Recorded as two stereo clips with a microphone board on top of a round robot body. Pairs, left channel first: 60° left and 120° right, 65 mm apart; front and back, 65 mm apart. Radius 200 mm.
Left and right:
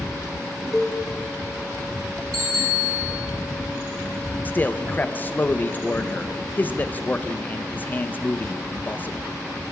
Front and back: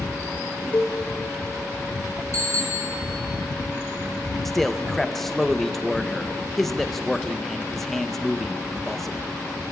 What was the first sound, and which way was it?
A cowbell, 25° right.